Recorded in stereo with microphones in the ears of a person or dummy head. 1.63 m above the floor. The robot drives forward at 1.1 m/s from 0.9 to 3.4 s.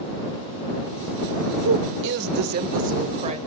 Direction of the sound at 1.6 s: 75° right (ahead or behind).